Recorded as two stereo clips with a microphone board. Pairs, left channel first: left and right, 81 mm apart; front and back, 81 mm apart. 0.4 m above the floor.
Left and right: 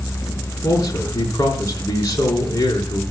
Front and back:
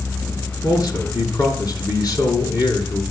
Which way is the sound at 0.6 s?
40° left.